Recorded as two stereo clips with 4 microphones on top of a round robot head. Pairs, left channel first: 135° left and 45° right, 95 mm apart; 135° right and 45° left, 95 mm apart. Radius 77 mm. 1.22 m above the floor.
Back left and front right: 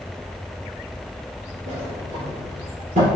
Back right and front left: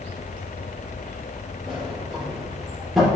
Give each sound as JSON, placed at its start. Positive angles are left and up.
{"t": 1.7, "sound": "a sliding door", "azimuth_deg": -45, "distance_m": 4.5}